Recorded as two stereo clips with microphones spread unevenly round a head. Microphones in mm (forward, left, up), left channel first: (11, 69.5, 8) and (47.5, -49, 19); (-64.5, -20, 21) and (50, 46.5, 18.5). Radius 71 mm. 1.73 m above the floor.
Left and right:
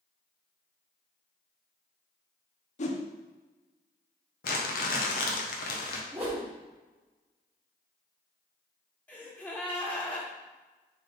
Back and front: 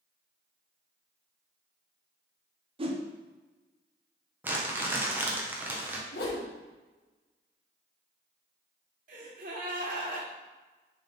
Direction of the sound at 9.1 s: 30° left.